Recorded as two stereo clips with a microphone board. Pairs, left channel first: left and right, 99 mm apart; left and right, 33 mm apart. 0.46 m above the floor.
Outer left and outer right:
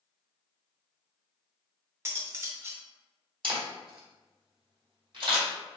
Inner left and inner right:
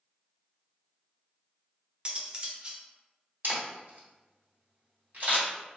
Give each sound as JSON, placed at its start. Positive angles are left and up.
{"t": 2.0, "sound": "cutlery clinking", "side_deg": -30, "distance_m": 0.8}
{"t": 3.4, "sound": "a camera shutter", "side_deg": -60, "distance_m": 1.8}